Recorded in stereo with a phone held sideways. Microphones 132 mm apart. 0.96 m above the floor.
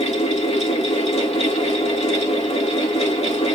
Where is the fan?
55° left (ahead or behind), 2.5 m.